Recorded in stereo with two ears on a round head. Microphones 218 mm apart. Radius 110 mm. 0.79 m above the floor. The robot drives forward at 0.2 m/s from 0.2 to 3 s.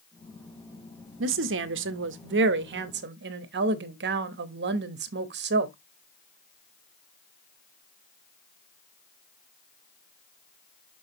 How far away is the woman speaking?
About 0.7 m.